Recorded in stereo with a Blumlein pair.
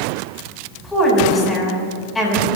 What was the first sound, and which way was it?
A woman speaking, 10° left.